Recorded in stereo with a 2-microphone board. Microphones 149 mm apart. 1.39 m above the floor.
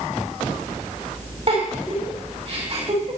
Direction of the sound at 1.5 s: 45° right (ahead or behind).